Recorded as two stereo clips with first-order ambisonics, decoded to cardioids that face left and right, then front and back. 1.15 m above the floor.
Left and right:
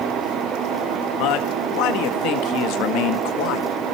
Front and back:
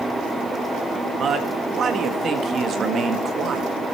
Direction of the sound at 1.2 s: 120° left.